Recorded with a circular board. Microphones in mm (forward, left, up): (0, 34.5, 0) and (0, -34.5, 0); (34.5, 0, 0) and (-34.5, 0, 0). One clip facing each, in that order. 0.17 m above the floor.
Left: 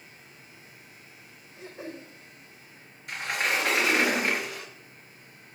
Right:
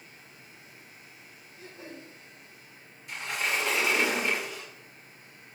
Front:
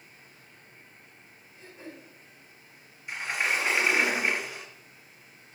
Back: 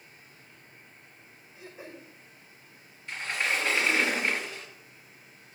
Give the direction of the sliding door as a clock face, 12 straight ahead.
10 o'clock.